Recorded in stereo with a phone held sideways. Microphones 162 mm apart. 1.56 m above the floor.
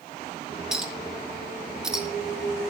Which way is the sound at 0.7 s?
5° right (ahead or behind).